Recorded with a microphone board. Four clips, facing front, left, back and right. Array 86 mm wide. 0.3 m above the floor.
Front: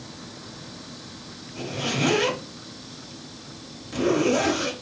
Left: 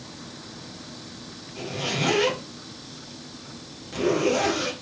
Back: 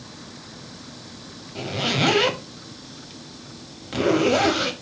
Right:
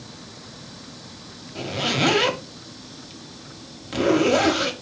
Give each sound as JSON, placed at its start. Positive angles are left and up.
{"t": 1.6, "sound": "a zipper", "azimuth_deg": -135, "distance_m": 0.6}